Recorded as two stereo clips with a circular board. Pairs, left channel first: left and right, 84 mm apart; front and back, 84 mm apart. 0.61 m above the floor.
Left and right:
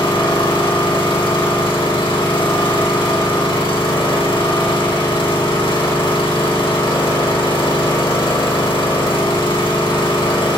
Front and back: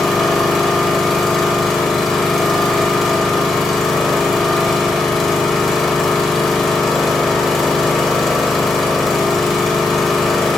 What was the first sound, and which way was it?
An engine running, 90° left.